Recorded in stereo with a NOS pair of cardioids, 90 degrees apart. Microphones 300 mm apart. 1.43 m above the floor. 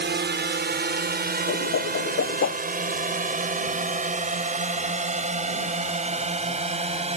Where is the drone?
35° right; by 7.2 s 20° right.